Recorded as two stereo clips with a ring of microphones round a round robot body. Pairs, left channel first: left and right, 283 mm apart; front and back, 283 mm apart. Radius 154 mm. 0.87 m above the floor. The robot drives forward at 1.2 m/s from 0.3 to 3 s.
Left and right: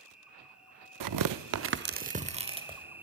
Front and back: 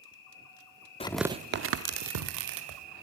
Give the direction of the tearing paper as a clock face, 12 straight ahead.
2 o'clock.